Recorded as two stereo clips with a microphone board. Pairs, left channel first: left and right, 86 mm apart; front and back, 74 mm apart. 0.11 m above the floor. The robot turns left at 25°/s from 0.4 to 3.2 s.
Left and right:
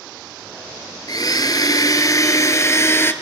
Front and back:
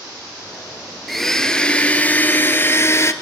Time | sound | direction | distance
1.1 | a blender | 90° left | 1.1 m